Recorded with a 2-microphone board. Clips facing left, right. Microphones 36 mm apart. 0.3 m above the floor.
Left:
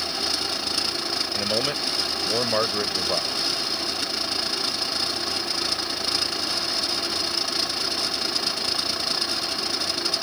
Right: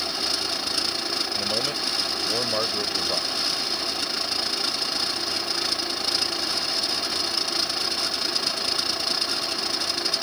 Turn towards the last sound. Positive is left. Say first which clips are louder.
# left 2 dB
turn(degrees=20)  # may be behind; listen again after turning